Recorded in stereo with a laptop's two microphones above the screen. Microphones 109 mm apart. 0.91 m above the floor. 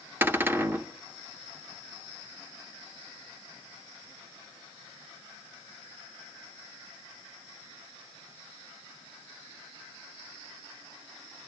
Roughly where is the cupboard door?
Centre.